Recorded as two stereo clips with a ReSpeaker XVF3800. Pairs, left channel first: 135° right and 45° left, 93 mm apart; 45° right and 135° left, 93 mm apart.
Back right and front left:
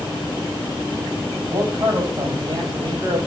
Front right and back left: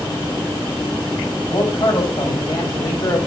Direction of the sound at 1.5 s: Straight ahead.